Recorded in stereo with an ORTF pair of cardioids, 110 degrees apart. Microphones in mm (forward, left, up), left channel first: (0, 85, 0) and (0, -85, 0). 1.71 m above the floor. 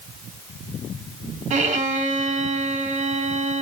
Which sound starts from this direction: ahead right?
A violin, at 1.5 s.